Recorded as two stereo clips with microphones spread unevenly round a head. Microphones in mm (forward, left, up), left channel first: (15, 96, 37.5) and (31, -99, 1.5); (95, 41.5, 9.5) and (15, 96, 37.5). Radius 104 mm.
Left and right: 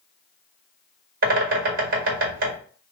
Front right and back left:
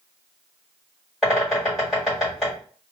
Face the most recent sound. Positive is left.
turn(degrees=-125)